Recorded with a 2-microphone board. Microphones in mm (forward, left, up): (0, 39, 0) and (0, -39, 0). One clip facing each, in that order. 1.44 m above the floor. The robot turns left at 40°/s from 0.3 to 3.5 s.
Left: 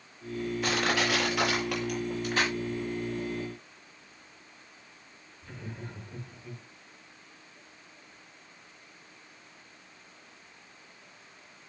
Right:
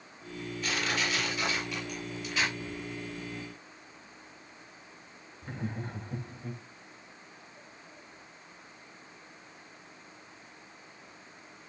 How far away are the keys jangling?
About 2.5 m.